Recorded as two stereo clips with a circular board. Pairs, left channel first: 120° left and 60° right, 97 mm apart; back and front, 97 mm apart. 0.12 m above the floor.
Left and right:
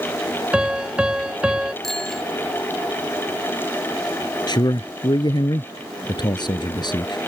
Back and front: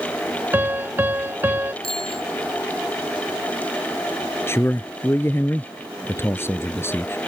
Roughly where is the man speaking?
Behind left.